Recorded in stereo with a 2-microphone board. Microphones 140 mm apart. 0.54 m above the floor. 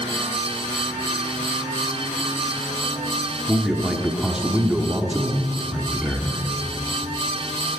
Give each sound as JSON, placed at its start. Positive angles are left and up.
{"t": 3.5, "sound": "a man speaking", "side_deg": -5, "distance_m": 1.2}